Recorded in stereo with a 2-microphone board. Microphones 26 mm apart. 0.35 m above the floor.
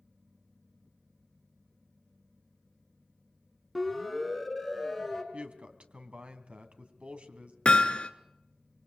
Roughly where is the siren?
Centre.